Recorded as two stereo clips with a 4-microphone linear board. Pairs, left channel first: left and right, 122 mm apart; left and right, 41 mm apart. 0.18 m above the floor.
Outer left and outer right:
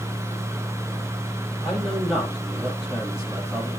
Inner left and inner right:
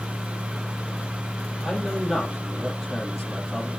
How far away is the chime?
I don't hear a chime.